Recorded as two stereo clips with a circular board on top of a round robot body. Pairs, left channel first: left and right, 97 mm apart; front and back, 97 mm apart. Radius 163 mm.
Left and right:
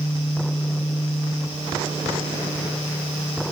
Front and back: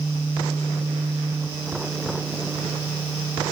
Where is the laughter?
No laughter in this recording.